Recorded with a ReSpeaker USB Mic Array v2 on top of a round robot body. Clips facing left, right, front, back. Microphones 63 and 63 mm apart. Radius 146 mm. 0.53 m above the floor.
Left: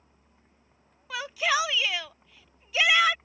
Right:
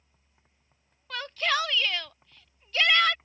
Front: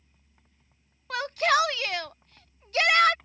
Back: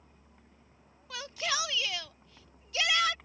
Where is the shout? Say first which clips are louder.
Left 2 dB, front 11 dB; 10° left.